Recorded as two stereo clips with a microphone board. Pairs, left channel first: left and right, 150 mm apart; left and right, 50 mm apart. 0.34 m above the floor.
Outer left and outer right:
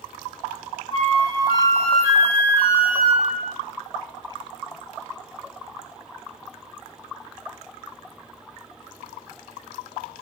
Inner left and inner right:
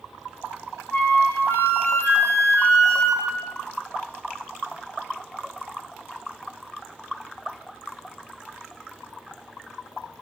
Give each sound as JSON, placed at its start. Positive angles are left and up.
{"t": 0.9, "sound": "a flute", "side_deg": 40, "distance_m": 0.9}